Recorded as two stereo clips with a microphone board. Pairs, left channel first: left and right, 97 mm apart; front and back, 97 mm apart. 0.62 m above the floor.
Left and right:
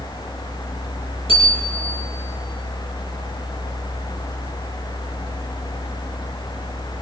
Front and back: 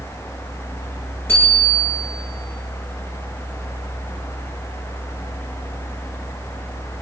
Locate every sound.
1.3 s a bicycle bell: 70° left, 7 m